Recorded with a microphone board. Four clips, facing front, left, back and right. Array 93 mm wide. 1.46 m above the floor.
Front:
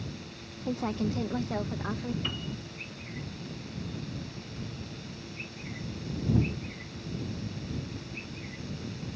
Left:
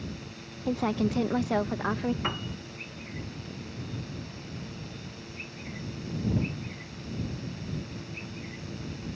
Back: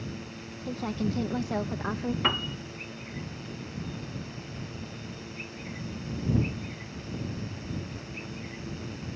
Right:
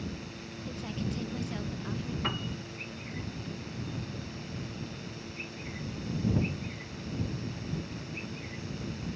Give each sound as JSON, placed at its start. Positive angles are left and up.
{"t": 0.7, "sound": "a woman speaking", "azimuth_deg": 75}
{"t": 2.2, "sound": "a piano", "azimuth_deg": 165}